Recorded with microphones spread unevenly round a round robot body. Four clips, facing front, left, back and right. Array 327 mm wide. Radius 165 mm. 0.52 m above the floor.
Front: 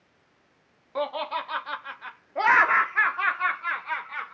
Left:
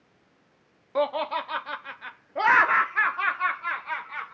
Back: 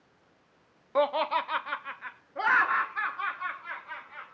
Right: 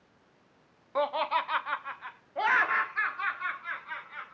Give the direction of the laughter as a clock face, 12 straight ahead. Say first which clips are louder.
Left 2 dB, back 3 dB; 7 o'clock.